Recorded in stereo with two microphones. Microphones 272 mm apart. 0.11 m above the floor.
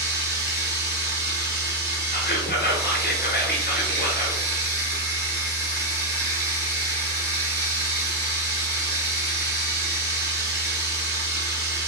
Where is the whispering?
35° left (ahead or behind), 1.3 m.